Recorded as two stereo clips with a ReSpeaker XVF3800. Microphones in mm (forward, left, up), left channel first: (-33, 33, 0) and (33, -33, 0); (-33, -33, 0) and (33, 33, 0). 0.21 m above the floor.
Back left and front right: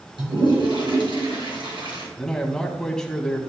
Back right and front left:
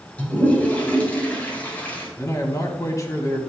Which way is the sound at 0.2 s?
60° right.